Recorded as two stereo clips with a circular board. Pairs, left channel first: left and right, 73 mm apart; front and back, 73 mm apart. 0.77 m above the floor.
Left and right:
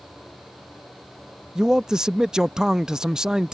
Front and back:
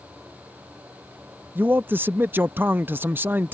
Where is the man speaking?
165° right.